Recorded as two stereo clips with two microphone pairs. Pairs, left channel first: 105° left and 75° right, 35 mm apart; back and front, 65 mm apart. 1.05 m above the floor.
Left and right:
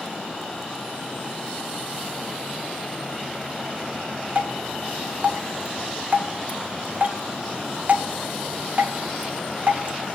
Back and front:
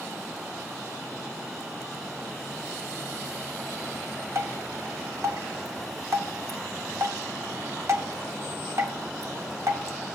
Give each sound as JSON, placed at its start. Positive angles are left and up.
{"t": 4.3, "sound": "dripping", "azimuth_deg": -35, "distance_m": 1.7}